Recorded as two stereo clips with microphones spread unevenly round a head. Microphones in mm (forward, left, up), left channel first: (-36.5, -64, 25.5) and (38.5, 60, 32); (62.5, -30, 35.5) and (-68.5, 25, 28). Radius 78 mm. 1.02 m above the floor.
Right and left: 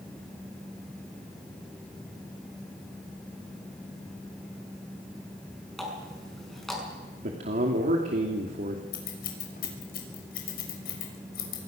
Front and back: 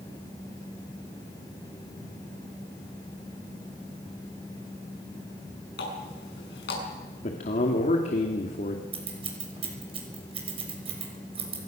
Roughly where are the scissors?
Behind right.